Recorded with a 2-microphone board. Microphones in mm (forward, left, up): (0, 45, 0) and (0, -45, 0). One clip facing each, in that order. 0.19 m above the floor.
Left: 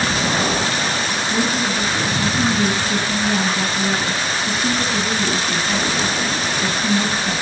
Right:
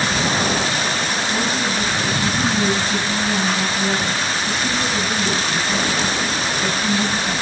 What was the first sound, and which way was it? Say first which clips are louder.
A woman speaking: left 3 dB; centre (ahead or behind).